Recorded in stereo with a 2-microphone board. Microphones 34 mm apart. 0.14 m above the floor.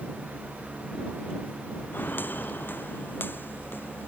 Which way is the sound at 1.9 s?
70° left (ahead or behind).